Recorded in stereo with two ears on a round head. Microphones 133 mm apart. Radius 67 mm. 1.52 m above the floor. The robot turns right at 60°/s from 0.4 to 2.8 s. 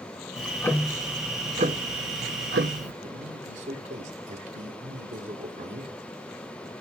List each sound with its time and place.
0.4 s ticking: 150° left, 0.8 m; by 2.9 s 65° right, 0.8 m
3.0 s a man speaking: 50° right (ahead or behind), 2 m